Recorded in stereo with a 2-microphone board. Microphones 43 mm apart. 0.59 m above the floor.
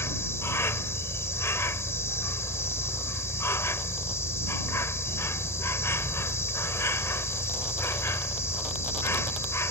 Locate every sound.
0.0 s an insect: 85° left